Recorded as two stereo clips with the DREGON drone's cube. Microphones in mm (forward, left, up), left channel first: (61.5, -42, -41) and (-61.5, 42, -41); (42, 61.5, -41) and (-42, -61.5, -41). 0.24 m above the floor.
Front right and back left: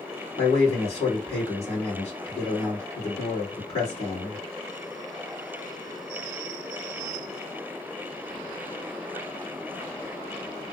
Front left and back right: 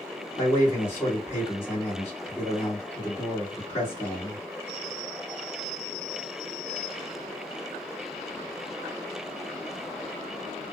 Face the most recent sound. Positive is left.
turn(degrees=-10)